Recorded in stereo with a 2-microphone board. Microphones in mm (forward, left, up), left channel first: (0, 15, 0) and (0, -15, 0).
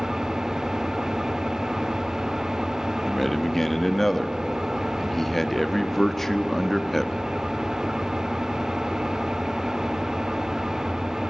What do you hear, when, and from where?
0.0 s an engine running: 15° right (ahead or behind), 1.8 m
3.1 s a man speaking: 10° left (ahead or behind), 1.3 m